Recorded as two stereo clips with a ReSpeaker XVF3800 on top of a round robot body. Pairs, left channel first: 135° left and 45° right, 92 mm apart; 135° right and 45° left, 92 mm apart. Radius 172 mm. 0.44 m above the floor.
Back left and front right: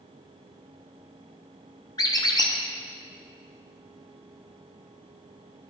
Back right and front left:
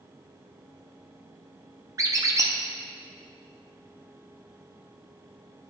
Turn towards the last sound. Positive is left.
turn(degrees=95)